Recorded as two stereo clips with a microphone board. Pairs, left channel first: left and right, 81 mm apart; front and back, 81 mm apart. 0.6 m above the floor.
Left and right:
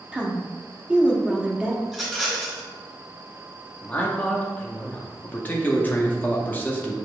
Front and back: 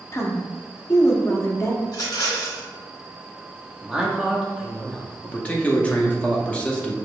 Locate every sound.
0.1 s a woman speaking: 25° right, 0.7 m
1.9 s a rattle: 5° right, 1.1 m
3.8 s a man speaking: 120° left, 0.7 m
5.2 s a man speaking: 55° left, 0.6 m